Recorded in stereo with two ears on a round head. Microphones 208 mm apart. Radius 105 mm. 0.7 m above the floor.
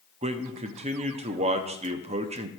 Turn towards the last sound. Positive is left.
turn(degrees=-30)  # may be behind; listen again after turning